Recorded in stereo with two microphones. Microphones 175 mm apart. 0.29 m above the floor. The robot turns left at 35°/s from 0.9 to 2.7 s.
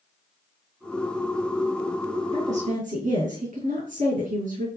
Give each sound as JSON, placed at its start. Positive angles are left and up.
{"t": 2.3, "sound": "a woman speaking", "side_deg": -40, "distance_m": 3.0}